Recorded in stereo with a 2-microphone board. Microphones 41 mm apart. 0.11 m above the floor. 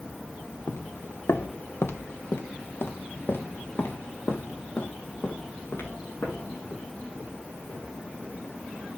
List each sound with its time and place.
0.7 s footsteps: 70° left (ahead or behind), 0.8 m; by 7.8 s 65° left (ahead or behind), 6 m